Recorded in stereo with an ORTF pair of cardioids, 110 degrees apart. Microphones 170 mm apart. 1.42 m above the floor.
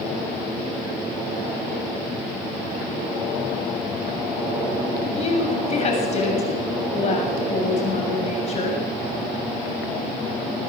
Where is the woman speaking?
40° left, 7 m.